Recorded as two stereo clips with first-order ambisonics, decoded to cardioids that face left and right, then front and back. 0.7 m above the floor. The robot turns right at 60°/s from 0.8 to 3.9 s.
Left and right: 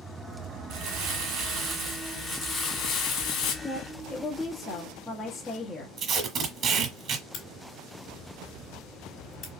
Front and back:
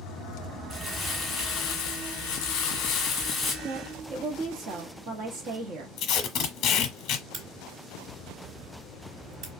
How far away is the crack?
About 2.5 m.